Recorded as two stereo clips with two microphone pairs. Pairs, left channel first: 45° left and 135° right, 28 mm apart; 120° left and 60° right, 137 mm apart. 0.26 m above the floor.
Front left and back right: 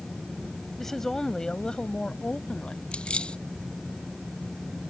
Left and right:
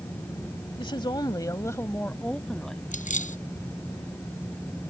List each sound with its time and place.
0.8 s a woman speaking: 120° left; by 2.8 s 30° left
2.9 s keys jangling: 95° left